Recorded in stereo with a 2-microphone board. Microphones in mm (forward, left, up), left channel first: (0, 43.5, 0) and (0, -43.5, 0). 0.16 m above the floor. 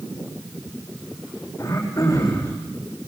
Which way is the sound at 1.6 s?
40° left (ahead or behind).